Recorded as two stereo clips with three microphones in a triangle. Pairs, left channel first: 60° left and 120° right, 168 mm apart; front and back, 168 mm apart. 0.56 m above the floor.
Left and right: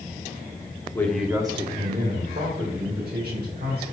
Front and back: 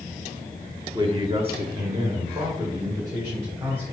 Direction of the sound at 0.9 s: 130° left.